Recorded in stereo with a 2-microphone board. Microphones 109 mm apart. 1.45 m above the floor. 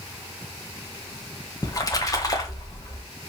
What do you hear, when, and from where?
1.6 s a splash: 30° left (ahead or behind), 1.6 m